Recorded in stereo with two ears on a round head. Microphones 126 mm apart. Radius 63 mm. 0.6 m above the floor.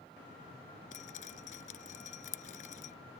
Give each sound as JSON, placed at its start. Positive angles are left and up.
{"t": 0.9, "sound": "dripping", "side_deg": 60}